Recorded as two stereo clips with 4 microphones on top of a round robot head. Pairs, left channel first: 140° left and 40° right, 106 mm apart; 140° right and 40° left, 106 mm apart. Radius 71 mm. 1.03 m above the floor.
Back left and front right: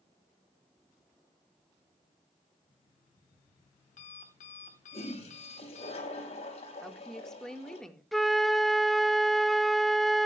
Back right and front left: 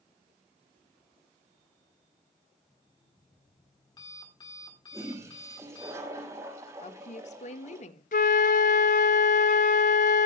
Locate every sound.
2.7 s an alarm clock: 165° left, 4 m
4.9 s a toilet flushing: 105° left, 5 m
6.8 s a woman speaking: 135° right, 1.6 m
8.1 s a flute: 130° right, 0.6 m